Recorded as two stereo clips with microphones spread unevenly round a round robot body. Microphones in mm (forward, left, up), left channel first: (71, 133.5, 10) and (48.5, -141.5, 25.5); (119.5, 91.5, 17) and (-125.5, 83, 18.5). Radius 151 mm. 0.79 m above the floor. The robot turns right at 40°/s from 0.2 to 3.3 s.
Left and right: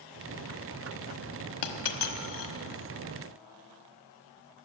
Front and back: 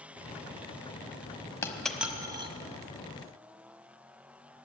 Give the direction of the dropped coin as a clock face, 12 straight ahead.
9 o'clock.